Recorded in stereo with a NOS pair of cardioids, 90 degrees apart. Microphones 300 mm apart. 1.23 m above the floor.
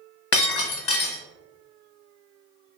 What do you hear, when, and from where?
0.3 s breaking glass: 50° left, 0.9 m